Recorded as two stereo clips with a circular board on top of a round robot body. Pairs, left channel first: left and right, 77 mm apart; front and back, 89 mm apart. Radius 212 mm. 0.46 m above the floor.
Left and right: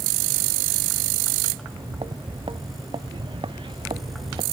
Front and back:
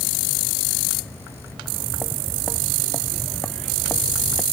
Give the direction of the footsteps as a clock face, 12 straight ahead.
3 o'clock.